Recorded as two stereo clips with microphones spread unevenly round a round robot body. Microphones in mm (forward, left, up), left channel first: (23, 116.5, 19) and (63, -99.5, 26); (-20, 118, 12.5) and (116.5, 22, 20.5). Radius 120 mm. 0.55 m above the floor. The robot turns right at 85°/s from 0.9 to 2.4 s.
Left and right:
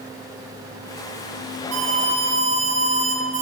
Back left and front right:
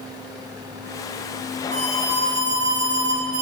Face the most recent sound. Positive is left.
turn(degrees=-20)